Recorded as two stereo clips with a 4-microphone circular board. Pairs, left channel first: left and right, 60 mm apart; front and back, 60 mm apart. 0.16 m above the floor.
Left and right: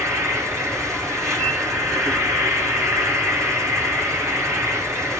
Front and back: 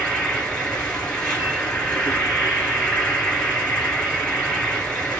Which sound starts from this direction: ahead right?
An insect, at 0.0 s.